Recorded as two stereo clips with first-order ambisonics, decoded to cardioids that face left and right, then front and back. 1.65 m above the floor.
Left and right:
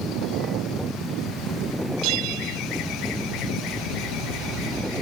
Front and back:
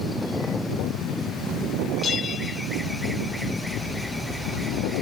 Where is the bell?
65° right.